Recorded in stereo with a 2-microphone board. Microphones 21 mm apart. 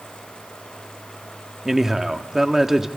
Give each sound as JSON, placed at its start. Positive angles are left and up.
{"t": 1.6, "sound": "a man speaking", "side_deg": -20, "distance_m": 1.2}